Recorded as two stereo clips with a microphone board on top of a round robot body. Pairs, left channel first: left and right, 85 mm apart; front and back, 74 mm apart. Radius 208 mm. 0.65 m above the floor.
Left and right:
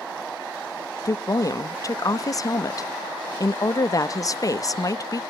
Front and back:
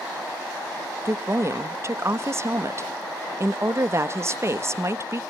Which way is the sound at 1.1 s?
135° left.